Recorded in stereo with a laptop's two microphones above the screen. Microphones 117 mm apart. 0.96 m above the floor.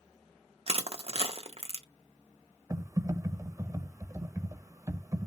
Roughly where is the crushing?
Right.